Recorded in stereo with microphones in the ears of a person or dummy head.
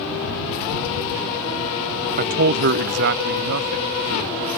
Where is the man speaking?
45° right (ahead or behind); by 4.5 s 70° right (ahead or behind).